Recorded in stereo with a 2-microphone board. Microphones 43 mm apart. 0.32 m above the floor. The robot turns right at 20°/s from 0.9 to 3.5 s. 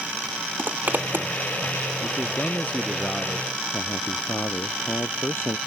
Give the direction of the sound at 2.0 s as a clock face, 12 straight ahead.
7 o'clock.